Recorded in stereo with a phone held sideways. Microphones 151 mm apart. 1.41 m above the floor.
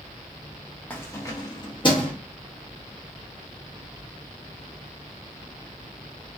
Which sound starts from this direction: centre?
Keys jangling, at 0.9 s.